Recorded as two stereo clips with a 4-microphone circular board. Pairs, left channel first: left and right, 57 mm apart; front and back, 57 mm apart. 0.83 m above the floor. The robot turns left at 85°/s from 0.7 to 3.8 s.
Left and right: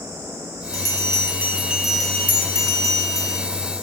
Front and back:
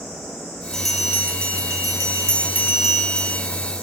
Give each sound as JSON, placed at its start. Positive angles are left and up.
{"t": 0.7, "sound": "a bell", "azimuth_deg": -80, "distance_m": 1.0}